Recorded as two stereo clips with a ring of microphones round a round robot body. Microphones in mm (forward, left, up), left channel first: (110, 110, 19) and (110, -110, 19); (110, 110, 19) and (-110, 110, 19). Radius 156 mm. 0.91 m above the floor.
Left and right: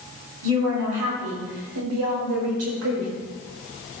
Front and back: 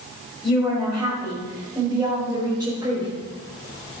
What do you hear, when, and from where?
0.4 s a woman speaking: 90° right, 5 m; by 3.1 s 105° right, 4 m